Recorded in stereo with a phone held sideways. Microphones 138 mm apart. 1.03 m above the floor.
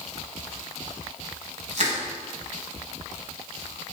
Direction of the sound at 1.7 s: 60° right (ahead or behind).